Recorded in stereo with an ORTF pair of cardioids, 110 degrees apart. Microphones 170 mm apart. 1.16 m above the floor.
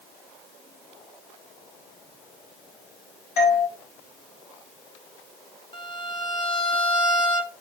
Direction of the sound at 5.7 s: 30° left.